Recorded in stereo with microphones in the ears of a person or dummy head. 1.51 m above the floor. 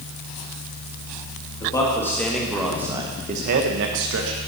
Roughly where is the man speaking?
Centre.